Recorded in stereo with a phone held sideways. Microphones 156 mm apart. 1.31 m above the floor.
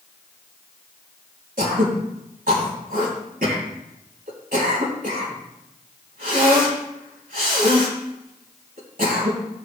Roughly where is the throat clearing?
Right.